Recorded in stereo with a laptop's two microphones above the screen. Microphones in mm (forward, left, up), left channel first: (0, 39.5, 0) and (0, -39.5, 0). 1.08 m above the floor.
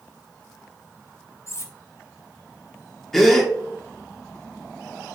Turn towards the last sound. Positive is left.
turn(degrees=5)  # may be behind; listen again after turning